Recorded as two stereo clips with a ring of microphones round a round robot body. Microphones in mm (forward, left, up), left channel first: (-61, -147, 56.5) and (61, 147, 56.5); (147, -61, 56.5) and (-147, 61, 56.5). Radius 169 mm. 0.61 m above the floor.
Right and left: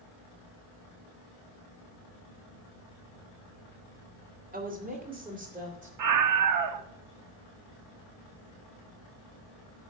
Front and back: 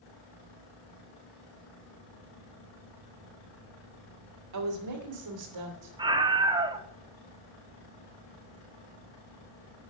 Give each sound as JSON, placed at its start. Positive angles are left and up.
{"t": 4.5, "sound": "a woman speaking", "azimuth_deg": 130, "distance_m": 2.0}
{"t": 6.0, "sound": "a scream", "azimuth_deg": 80, "distance_m": 1.0}